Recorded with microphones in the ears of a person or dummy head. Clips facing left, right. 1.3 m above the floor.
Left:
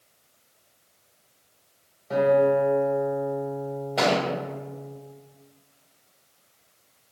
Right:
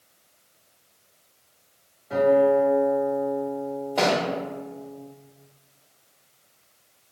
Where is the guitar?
60° left (ahead or behind), 1.5 m.